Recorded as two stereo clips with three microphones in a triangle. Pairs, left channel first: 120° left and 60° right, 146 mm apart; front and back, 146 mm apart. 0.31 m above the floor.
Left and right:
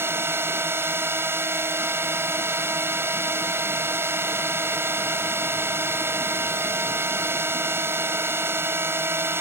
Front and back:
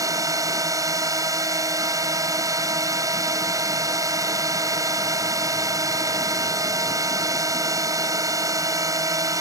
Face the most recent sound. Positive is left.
turn(degrees=-125)